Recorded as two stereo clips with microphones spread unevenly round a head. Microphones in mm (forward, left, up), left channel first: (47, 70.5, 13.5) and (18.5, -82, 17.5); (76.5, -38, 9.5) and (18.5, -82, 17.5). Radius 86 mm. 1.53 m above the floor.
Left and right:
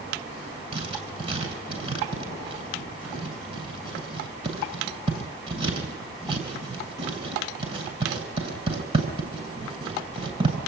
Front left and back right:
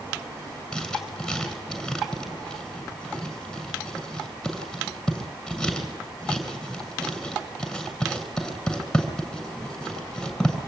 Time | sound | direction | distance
0.7 | writing | 50° right | 8.5 m